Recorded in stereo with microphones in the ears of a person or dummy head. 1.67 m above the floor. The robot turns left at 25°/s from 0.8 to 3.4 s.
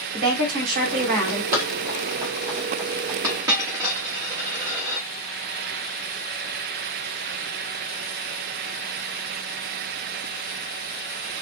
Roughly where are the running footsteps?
Centre.